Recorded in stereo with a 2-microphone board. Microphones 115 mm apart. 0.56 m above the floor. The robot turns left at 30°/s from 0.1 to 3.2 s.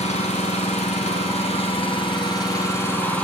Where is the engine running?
105° left, 5 m; by 3.2 s 10° left, 5 m.